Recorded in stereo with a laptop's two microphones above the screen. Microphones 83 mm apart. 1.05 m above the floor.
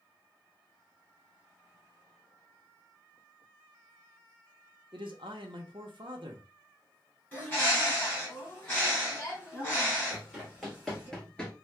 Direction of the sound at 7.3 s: 25° left (ahead or behind).